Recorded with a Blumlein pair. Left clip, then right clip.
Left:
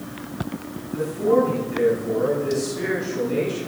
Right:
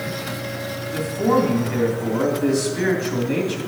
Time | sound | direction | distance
0.9 | a man speaking | 30° right | 3 m